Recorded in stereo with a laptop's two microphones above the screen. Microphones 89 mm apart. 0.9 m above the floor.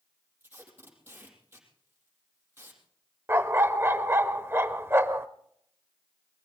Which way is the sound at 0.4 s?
25° right (ahead or behind).